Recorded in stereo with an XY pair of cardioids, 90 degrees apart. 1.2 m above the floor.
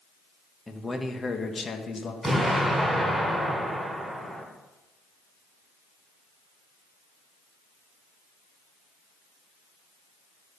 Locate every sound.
0.7 s a man speaking: 15° left, 1.7 m; by 2.1 s 60° left, 1.8 m
2.2 s an explosion: 5° left, 5.5 m